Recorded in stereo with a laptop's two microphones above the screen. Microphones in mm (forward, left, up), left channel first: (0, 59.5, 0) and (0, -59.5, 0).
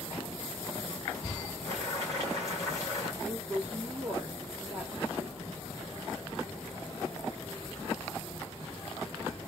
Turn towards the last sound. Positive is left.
turn(degrees=-10)  # may be behind; listen again after turning